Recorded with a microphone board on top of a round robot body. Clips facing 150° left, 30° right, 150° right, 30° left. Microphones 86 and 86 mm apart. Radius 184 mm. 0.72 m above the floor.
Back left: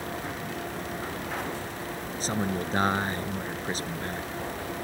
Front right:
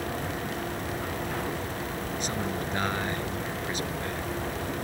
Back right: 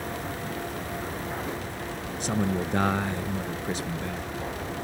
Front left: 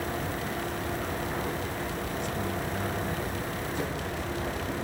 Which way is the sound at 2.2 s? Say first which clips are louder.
Back left 5 dB, back right 9 dB; 155° right.